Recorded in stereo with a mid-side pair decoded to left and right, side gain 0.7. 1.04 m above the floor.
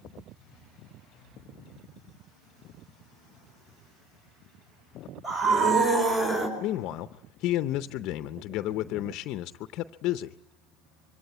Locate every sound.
5.2 s a scream: 40° right, 5 m; by 6.5 s 30° right, 4.5 m
6.6 s a man speaking: 60° left, 0.6 m